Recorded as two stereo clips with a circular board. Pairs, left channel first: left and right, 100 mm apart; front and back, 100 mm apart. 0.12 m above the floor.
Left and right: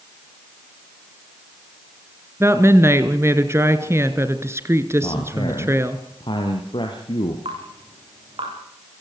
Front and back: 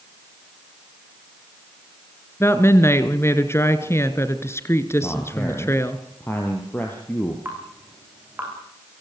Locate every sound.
2.4 s a woman speaking: 45° right, 2.0 m
5.0 s a man speaking: 70° left, 3.5 m
7.5 s dripping: 110° right, 9 m